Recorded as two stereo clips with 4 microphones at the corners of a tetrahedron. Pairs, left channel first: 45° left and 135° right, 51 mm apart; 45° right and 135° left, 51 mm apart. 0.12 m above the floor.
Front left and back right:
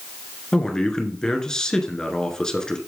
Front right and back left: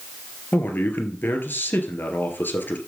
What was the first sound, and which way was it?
A man speaking, 25° right.